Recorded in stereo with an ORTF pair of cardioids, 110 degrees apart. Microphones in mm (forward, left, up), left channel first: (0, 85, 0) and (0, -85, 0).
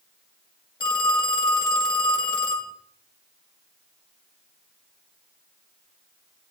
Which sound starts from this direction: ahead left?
A phone ringing, at 0.8 s.